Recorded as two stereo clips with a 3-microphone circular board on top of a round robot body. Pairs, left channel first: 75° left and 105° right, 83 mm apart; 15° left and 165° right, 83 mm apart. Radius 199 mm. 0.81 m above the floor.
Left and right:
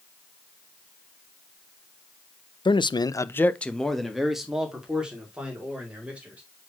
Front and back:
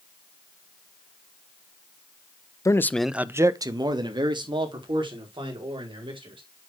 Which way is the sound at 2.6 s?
60° left.